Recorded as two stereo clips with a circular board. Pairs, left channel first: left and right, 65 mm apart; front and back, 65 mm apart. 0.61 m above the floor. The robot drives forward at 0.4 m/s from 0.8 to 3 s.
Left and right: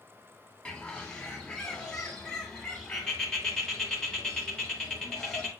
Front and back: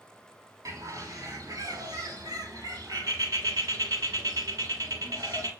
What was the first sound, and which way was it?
A bird, 165° left.